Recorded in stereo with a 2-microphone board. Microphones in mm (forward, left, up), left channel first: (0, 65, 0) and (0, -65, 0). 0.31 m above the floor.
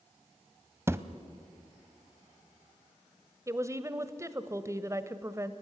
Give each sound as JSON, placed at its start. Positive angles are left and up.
{"t": 0.9, "sound": "a thud", "side_deg": -20, "distance_m": 1.0}
{"t": 3.5, "sound": "a woman speaking", "side_deg": -25, "distance_m": 1.1}